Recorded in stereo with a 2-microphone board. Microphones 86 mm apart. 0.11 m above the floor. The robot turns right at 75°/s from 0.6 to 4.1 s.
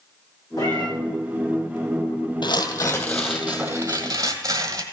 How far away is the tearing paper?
About 1.6 m.